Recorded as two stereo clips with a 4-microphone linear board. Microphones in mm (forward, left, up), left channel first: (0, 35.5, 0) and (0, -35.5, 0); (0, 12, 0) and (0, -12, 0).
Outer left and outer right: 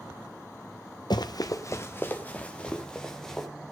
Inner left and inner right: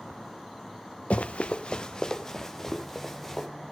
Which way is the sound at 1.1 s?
85° left.